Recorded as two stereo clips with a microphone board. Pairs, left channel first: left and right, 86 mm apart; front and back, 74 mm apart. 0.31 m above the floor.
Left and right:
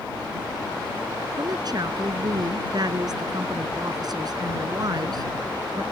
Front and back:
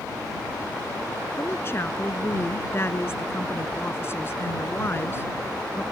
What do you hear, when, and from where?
1.4 s a woman speaking: 55° right